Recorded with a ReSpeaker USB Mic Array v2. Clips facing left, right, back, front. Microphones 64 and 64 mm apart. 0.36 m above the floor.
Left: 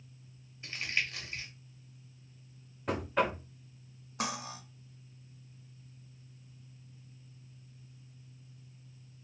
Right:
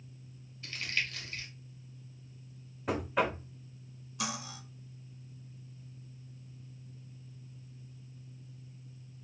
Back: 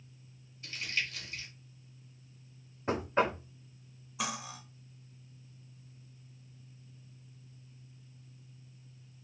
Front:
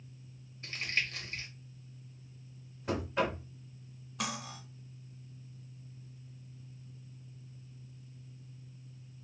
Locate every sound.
0.6 s crumpling: 30° left, 1.0 m
2.9 s knocking: 175° right, 0.5 m
4.2 s cutlery clinking: 95° left, 0.6 m